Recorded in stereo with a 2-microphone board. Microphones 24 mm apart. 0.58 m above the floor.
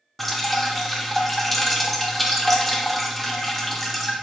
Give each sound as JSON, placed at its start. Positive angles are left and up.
{"t": 0.2, "sound": "dripping", "side_deg": 5, "distance_m": 0.6}